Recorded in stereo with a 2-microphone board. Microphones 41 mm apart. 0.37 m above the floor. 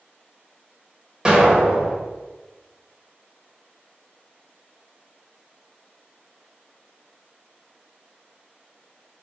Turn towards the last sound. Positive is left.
turn(degrees=-15)  # may be behind; listen again after turning